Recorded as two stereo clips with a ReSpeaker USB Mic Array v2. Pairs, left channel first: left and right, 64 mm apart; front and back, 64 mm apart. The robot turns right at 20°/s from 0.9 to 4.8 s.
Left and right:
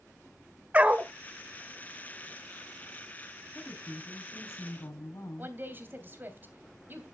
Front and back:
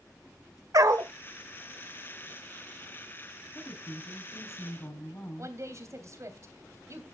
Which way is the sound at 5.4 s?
145° right.